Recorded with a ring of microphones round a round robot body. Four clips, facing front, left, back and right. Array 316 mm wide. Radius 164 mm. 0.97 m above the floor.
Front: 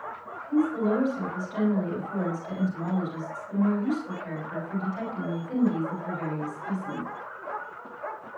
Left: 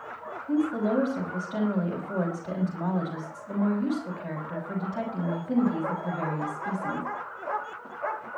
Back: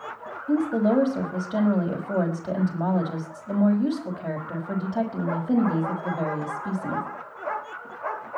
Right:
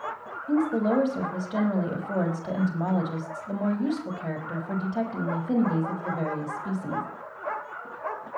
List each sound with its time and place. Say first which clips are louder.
0.5 s a woman speaking: right 2 dB, back 3 dB; 150° right, 6 m